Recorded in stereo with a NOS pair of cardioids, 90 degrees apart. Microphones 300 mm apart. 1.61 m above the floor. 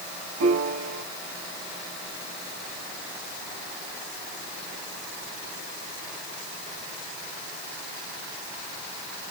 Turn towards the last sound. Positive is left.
turn(degrees=-55)